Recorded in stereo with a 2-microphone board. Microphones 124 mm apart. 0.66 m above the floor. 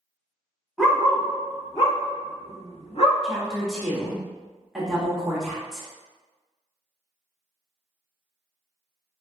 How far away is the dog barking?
About 1.1 m.